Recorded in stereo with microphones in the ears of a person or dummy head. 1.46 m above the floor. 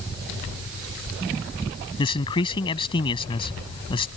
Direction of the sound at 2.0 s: 25° left (ahead or behind).